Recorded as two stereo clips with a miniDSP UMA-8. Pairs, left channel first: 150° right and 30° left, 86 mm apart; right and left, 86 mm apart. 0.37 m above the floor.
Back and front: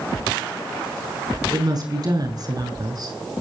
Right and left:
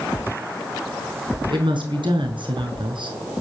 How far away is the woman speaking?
About 6 m.